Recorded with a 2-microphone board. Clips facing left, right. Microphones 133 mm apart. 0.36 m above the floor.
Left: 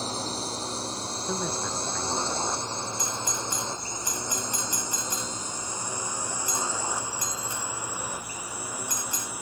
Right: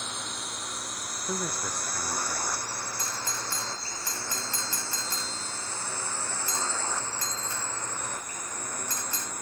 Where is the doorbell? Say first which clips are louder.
Left 4 dB; 20° left (ahead or behind).